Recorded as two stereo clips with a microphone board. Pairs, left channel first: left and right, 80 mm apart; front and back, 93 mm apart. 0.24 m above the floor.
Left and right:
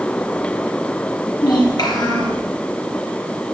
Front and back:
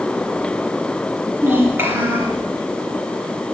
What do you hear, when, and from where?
1.4 s a child speaking: 115° left, 3.5 m